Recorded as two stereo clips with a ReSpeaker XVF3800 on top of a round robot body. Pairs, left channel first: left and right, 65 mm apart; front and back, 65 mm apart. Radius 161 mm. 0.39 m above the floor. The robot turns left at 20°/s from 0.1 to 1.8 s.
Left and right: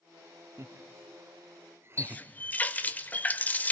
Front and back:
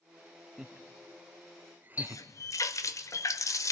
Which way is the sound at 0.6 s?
100° right.